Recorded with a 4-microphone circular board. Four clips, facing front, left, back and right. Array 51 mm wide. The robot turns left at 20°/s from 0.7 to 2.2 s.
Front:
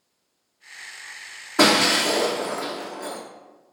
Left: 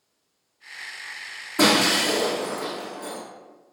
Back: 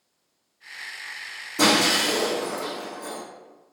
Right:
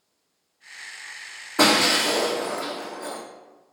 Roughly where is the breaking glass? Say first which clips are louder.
Even, front 2 dB; ahead right.